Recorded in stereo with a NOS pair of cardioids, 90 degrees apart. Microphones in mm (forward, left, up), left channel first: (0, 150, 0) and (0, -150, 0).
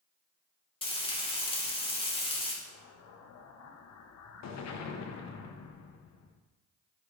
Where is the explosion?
60° left, 1.0 m.